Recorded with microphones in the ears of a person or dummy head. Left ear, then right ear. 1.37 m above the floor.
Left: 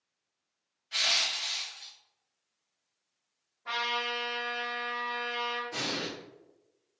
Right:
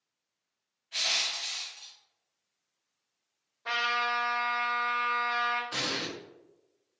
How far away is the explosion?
About 1.0 m.